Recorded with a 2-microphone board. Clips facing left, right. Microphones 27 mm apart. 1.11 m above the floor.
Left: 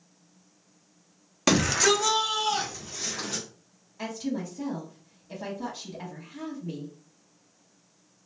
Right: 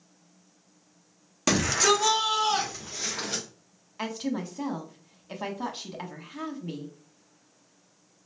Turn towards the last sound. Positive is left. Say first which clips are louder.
# right 1 dB
turn(degrees=-60)  # may be behind; listen again after turning